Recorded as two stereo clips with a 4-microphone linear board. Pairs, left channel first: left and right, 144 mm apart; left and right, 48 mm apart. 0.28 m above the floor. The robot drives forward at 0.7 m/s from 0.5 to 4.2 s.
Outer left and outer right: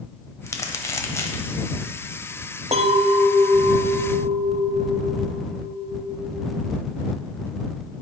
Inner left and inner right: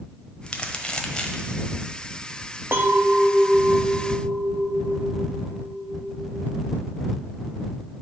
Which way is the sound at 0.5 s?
20° left (ahead or behind).